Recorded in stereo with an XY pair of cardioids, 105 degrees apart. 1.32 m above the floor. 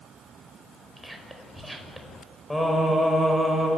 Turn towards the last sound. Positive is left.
turn(degrees=10)